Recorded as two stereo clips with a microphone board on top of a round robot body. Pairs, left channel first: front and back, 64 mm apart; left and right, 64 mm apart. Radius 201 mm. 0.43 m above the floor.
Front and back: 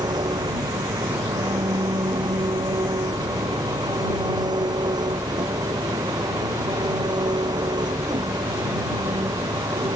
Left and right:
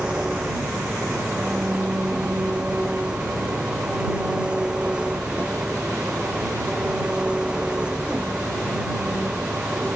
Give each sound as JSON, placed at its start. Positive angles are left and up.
{"t": 0.0, "sound": "an engine running", "azimuth_deg": -170}